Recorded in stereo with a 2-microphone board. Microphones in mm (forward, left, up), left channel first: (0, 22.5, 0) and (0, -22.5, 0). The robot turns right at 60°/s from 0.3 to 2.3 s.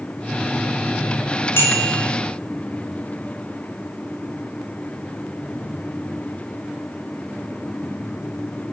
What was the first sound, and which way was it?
A bicycle bell, 110° left.